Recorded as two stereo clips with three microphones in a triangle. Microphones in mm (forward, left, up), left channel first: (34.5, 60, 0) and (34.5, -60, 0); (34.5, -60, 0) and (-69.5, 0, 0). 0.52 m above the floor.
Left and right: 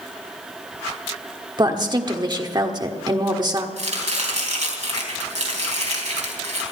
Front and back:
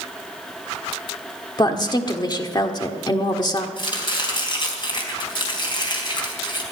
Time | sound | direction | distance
1.6 | a woman speaking | 60° right | 1.4 m
3.8 | chopping | 80° right | 3.5 m